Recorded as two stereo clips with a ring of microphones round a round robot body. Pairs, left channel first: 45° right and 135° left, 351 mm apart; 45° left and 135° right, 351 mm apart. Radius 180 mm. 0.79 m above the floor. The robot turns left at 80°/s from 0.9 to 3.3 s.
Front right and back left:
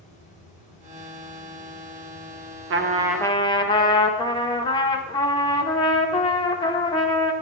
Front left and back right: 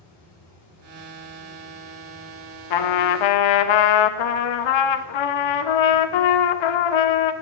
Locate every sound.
0.0 s running water: 25° left, 2 m; by 7.4 s 165° right, 2 m
2.7 s a trumpet: 80° left, 0.6 m; by 7.3 s 35° left, 0.6 m